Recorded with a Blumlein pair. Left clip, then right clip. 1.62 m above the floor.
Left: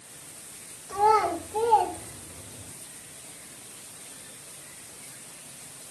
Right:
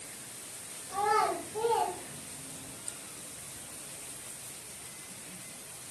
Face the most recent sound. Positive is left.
turn(degrees=55)